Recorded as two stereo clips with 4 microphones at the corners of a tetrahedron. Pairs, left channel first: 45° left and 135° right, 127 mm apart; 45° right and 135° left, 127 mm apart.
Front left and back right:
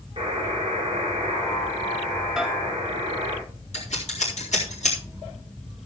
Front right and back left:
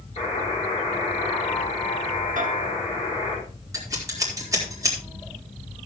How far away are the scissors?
About 4 m.